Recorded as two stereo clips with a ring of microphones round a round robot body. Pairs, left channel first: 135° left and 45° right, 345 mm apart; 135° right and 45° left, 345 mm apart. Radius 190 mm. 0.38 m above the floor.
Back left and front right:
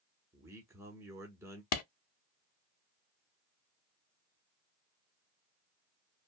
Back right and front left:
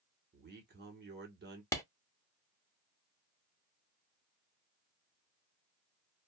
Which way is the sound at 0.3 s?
30° left.